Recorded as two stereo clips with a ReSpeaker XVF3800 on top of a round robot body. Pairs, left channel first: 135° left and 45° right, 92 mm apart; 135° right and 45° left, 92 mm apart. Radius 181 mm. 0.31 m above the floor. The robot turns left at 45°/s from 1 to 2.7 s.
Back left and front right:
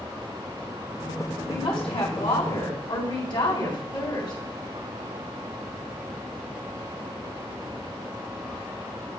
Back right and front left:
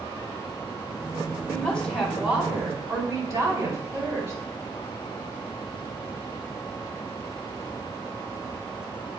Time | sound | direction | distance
1.5 | a woman speaking | 160° left | 4 m